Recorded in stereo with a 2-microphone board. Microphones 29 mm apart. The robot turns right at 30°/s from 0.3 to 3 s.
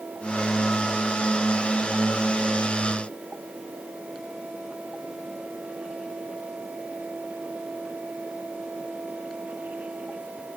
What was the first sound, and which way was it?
Only background noise.